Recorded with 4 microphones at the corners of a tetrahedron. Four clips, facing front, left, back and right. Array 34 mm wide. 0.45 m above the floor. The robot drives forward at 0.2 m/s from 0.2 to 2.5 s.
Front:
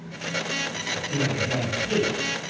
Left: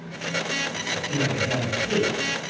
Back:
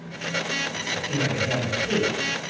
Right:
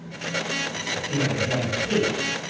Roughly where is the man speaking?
Behind.